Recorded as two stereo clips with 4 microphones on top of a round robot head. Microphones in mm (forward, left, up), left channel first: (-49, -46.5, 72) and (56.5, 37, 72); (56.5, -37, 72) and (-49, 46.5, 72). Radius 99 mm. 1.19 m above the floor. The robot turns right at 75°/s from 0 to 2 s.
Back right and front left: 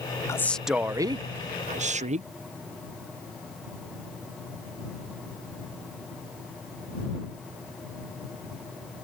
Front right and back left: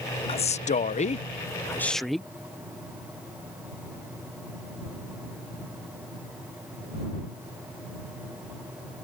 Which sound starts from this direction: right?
A man speaking, at 0.3 s.